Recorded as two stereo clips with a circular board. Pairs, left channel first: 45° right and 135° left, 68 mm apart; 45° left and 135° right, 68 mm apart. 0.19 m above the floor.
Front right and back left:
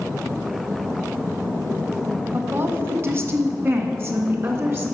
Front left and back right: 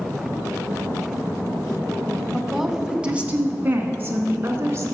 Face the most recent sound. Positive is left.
turn(degrees=180)